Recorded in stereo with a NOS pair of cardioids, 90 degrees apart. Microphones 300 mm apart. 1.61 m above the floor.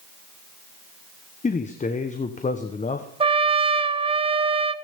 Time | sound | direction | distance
1.4 | a man speaking | 25° left | 1.2 m
3.2 | a trumpet | 20° right | 0.8 m